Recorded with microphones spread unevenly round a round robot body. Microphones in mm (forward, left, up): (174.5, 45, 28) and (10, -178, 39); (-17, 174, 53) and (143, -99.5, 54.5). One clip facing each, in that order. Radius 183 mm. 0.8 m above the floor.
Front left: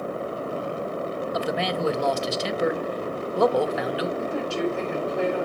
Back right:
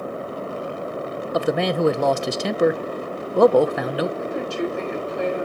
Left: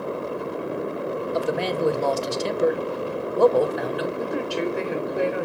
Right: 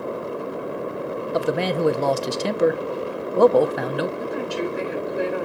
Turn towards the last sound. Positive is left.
turn(degrees=80)